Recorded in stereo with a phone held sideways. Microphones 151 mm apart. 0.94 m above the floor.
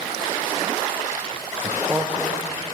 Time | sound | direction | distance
1.6 | a man speaking | 10° right (ahead or behind) | 1.0 m